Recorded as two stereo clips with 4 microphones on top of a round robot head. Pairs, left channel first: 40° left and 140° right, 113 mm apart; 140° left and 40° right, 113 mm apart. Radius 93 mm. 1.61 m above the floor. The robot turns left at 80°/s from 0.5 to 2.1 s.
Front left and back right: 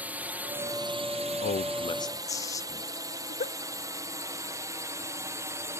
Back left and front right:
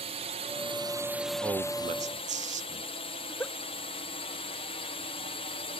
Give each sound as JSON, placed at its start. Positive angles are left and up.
{"t": 0.0, "sound": "a drone", "azimuth_deg": -60}
{"t": 1.4, "sound": "a man speaking", "azimuth_deg": 35}
{"t": 3.2, "sound": "a giggle", "azimuth_deg": 65}